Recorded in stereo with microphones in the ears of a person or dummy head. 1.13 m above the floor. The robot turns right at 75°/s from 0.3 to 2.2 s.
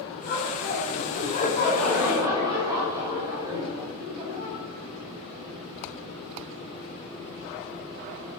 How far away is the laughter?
About 6 m.